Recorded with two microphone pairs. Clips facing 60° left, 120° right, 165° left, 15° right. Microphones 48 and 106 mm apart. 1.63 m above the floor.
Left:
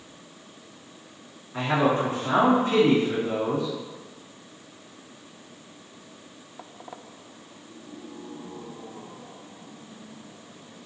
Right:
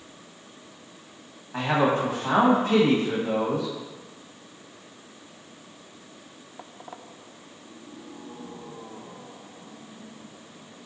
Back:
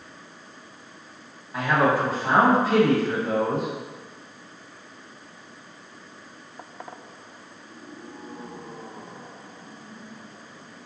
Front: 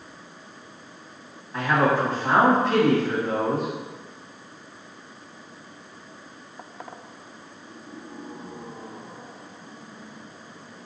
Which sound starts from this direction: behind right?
A man speaking, at 1.5 s.